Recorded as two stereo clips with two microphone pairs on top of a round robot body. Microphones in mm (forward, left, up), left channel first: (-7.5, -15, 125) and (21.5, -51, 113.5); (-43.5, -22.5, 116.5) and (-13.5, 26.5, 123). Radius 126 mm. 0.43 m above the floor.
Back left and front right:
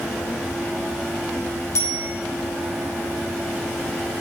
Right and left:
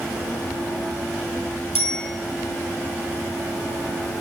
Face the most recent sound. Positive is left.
turn(degrees=115)